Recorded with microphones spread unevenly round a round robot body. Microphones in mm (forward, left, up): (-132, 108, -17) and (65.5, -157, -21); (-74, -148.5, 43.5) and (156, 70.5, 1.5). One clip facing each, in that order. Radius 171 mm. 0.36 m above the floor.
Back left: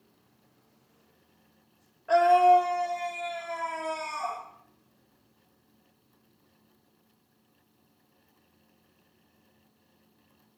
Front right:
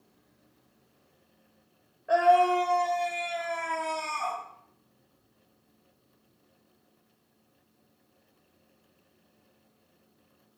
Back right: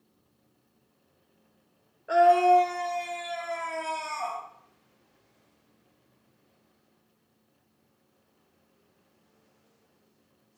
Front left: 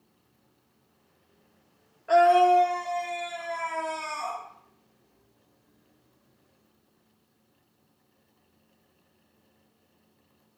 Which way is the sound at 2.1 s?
85° left.